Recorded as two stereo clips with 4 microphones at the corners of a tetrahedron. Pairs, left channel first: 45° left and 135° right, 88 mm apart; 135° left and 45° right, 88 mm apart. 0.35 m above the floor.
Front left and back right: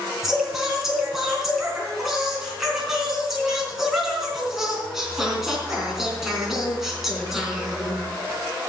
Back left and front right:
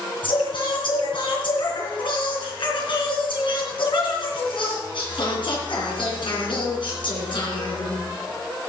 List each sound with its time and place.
0.2 s singing: 140° left, 3.5 m